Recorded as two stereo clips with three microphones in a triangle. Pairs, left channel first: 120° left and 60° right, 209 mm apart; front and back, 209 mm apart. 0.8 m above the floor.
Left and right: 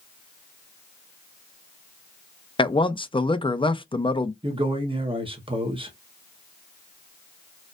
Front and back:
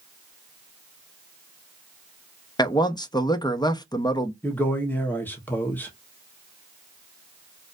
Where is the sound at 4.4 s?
70° right, 1.1 m.